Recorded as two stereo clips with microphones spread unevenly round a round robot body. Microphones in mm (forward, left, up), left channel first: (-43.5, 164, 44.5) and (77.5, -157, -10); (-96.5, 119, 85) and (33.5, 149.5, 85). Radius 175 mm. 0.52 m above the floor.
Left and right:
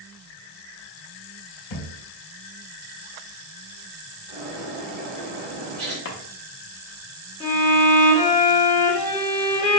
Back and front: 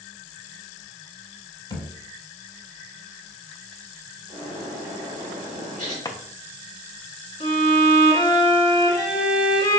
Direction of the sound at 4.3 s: 90° right.